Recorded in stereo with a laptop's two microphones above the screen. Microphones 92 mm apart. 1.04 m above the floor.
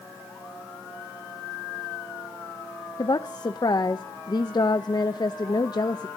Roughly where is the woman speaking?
Left.